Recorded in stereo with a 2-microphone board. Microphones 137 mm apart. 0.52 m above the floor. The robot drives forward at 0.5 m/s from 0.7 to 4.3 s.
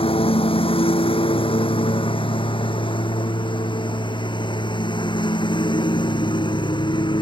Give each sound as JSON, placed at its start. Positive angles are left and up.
{"t": 0.0, "sound": "a lawn mower", "side_deg": 40}